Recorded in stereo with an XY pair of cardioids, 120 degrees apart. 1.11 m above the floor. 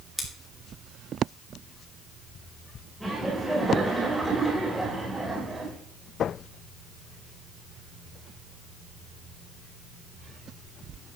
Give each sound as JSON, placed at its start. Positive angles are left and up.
{"t": 0.2, "sound": "scissors", "azimuth_deg": 10, "distance_m": 2.5}
{"t": 3.0, "sound": "laughter", "azimuth_deg": -5, "distance_m": 4.0}